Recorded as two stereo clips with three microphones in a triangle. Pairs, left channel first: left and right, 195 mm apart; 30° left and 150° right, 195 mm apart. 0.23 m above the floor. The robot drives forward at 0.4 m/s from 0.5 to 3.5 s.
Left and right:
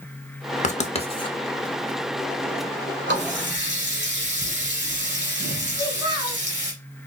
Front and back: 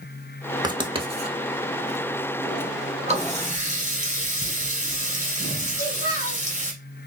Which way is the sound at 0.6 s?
145° left.